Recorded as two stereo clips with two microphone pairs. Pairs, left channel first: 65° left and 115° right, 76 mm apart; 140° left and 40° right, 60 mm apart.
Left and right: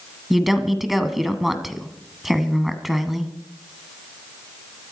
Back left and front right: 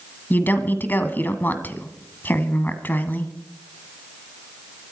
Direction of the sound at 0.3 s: 160° left.